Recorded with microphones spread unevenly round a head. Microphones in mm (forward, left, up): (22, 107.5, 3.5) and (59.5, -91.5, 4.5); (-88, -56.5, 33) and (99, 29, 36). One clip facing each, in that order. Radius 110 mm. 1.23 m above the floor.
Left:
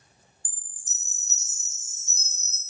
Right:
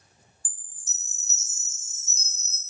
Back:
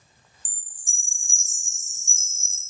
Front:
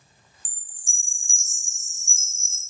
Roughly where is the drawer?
I don't hear a drawer.